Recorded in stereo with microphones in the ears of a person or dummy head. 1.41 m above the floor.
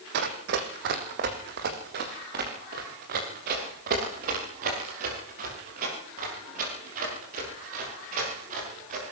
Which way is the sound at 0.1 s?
60° right (ahead or behind).